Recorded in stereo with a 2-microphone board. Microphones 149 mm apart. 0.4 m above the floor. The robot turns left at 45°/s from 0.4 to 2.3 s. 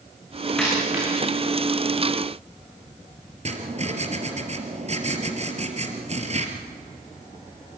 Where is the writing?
45° right (ahead or behind), 3 m.